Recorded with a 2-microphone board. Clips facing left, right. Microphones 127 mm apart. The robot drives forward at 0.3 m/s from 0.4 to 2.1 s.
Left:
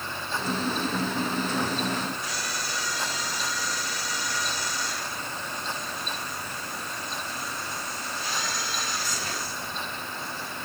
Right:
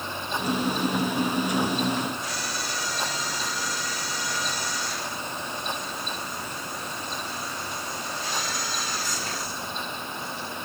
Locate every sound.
Only background noise.